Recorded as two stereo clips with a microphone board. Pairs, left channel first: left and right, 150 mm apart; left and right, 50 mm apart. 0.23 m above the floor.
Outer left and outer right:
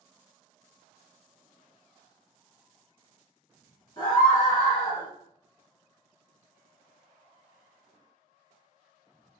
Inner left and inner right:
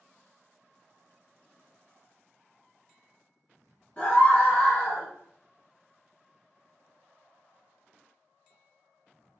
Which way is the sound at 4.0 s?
30° left (ahead or behind).